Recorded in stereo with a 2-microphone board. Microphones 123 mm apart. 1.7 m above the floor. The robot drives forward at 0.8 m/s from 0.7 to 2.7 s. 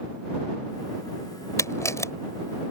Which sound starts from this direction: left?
A camera shutter, at 1.6 s.